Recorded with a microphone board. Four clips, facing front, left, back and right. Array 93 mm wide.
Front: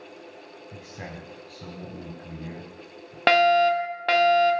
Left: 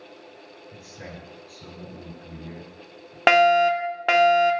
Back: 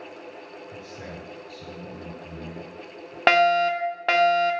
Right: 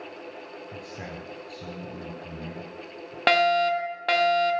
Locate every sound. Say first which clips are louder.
0.7 s a man speaking: right 1 dB, front 1 dB; 35° right, 5 m
3.3 s a fire alarm: left 4 dB, front 1 dB; 120° left, 1.5 m